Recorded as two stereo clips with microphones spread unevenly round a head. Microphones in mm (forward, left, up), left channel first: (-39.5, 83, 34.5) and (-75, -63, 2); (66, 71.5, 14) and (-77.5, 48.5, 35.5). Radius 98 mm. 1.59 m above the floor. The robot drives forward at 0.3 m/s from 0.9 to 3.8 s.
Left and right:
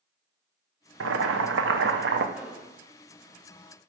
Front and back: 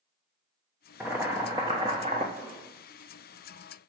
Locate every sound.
1.0 s boiling: 90° right, 0.8 m; by 2.2 s 115° right, 0.9 m
2.4 s an explosion: 165° left, 3 m